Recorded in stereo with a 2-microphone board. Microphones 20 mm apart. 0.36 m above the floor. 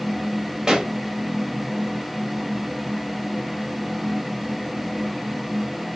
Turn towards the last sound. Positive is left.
turn(degrees=-30)  # may be behind; listen again after turning